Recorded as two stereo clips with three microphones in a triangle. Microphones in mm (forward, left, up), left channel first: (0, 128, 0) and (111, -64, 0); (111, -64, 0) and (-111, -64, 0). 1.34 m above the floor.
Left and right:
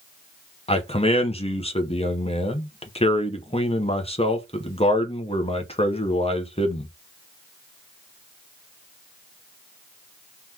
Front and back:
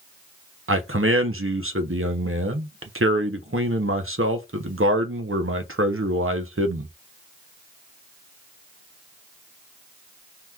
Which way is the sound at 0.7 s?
Straight behind.